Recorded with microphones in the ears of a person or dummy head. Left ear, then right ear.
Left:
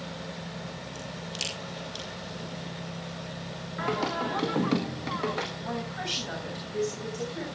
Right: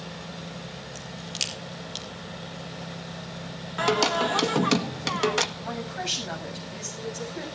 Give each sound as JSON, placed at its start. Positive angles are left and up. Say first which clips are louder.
{"t": 0.9, "sound": "a crack", "louder": "right 4 dB", "side_deg": -20, "distance_m": 4.5}
{"t": 3.8, "sound": "singing", "louder": "right 7 dB", "side_deg": -70, "distance_m": 1.7}
{"t": 5.6, "sound": "a woman speaking", "louder": "right 1 dB", "side_deg": -15, "distance_m": 7.5}